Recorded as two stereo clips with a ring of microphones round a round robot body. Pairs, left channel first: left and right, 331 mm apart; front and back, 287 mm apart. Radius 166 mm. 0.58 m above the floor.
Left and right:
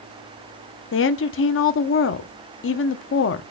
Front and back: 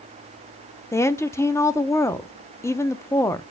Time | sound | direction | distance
0.9 | a woman speaking | 75° left | 0.6 m